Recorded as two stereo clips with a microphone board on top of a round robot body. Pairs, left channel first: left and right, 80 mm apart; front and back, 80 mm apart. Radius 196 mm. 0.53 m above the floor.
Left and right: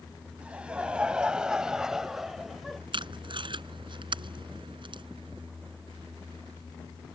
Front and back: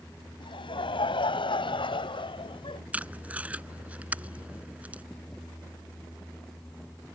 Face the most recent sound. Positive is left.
turn(degrees=-105)